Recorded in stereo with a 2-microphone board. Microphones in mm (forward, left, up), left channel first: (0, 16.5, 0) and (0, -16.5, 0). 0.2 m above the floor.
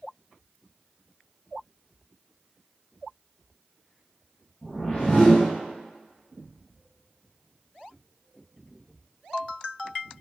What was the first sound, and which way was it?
A whoosh, 30° left (ahead or behind).